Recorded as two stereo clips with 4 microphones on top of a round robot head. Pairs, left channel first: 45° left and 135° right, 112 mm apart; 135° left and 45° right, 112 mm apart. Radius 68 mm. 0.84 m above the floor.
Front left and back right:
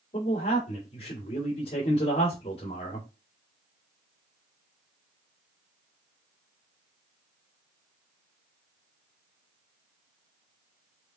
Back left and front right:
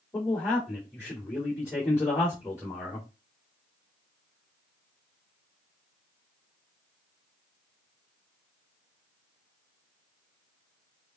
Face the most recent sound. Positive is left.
turn(degrees=70)